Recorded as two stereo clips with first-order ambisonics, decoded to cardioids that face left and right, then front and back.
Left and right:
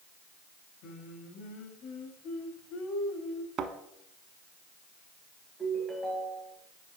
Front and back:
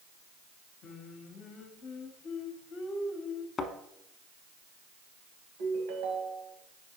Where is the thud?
65° right, 0.7 m.